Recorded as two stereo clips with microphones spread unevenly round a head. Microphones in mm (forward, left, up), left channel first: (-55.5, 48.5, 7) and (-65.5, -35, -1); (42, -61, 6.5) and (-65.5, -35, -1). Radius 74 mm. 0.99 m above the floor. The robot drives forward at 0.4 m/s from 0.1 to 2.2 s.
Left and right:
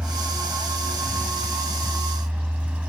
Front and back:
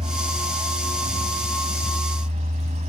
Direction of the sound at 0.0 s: 175° right.